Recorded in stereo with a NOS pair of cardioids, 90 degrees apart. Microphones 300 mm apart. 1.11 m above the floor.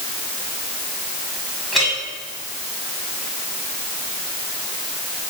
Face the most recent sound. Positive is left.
turn(degrees=0)